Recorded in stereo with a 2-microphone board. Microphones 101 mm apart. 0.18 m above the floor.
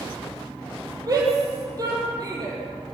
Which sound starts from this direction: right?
A shout, at 1.1 s.